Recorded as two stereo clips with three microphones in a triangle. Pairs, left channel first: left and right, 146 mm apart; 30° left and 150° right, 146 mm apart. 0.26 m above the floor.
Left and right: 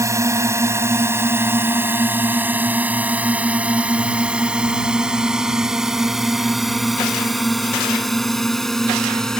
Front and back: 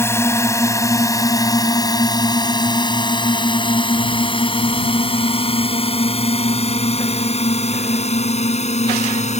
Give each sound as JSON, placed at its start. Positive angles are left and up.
{"t": 0.0, "sound": "a drone", "azimuth_deg": -30}